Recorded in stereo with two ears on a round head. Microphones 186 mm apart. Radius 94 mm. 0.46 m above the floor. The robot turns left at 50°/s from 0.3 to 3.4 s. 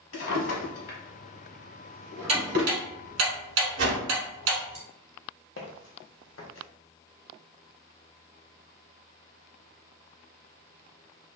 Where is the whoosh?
60° right (ahead or behind), 0.9 m.